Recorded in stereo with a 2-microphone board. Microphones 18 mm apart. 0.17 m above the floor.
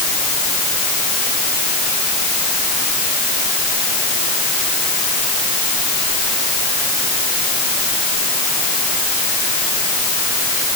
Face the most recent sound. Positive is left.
No sound to turn to.